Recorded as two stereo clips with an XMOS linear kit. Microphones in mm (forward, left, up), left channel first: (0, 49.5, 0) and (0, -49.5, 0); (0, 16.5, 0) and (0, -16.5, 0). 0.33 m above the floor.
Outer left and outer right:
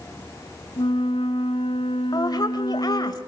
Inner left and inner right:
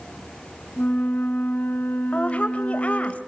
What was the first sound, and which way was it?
A flute, 70° left (ahead or behind).